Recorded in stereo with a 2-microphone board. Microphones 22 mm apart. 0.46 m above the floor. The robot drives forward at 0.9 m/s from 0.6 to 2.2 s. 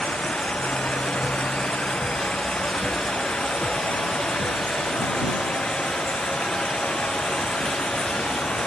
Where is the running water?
80° left; by 8.7 s 70° left (ahead or behind).